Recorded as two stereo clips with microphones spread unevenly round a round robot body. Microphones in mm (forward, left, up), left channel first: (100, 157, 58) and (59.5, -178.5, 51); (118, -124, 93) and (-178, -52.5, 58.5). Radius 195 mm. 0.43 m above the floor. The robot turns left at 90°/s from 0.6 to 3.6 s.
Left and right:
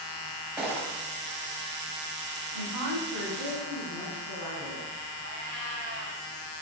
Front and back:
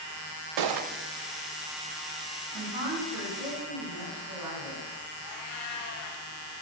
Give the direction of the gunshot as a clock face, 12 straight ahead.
6 o'clock.